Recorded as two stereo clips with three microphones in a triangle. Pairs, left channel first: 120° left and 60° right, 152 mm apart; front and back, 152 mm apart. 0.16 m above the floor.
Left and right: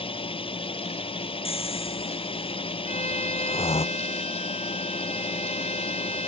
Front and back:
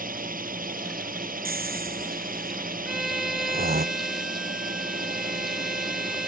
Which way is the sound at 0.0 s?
170° left.